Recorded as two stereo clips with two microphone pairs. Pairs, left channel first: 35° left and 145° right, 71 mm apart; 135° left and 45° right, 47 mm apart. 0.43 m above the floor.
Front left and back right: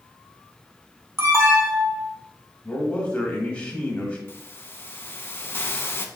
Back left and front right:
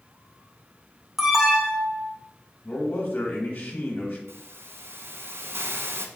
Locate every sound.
1.2 s an alarm: 120° right, 1.0 m
2.6 s a man speaking: 90° left, 1.0 m
4.3 s a hiss: 15° right, 0.5 m